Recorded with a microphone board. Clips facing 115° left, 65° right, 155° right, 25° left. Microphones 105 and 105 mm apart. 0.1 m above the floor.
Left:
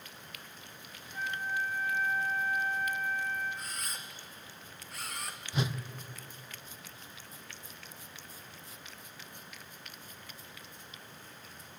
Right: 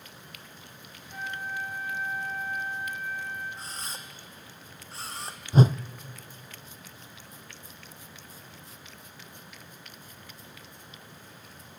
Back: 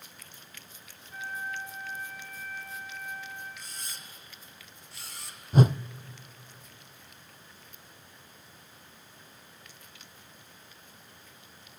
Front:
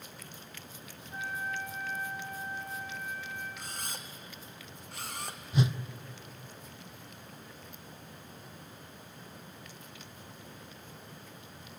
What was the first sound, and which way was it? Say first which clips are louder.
A flute: even, even; 45° right.